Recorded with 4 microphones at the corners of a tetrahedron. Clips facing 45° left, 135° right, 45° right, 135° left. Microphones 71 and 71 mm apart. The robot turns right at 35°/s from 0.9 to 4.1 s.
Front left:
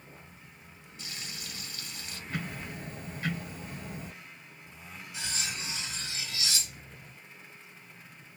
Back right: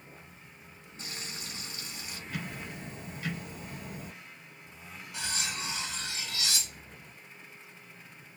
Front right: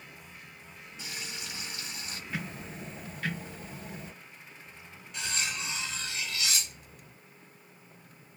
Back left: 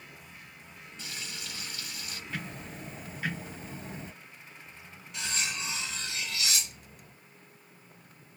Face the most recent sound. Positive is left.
turn(degrees=-135)